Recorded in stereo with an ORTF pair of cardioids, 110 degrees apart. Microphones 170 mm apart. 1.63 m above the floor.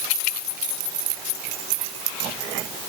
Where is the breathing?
I don't hear breathing.